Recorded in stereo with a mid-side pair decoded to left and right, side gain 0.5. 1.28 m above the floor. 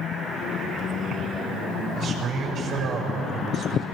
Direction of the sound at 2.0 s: 60° right.